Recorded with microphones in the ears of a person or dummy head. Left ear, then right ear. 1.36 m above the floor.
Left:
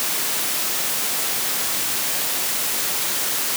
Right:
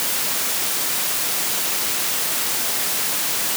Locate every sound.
Only background noise.